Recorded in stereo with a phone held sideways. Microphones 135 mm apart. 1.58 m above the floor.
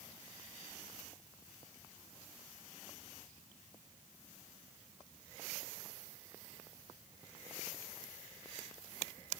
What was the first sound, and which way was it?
Only background noise.